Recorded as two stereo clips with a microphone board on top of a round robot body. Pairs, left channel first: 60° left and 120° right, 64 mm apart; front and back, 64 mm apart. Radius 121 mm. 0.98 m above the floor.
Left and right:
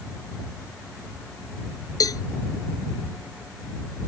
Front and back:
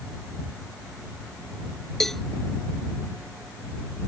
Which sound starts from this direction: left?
A cowbell, at 2.0 s.